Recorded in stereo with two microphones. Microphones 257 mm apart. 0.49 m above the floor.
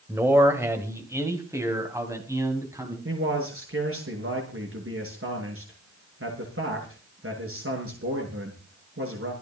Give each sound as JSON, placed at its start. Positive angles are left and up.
{"t": 0.1, "sound": "a man speaking", "side_deg": -10, "distance_m": 2.5}
{"t": 3.0, "sound": "a man speaking", "side_deg": -55, "distance_m": 7.5}